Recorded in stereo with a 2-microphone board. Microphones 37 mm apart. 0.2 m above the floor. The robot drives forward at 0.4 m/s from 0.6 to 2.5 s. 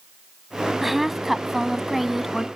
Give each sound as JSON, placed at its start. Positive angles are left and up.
{"t": 0.8, "sound": "a woman speaking", "side_deg": -5}